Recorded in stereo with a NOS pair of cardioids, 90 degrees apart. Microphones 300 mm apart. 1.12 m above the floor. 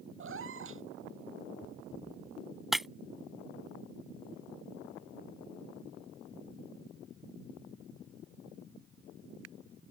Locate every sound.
0.2 s a cat meowing: 45° right
2.7 s breaking glass: straight ahead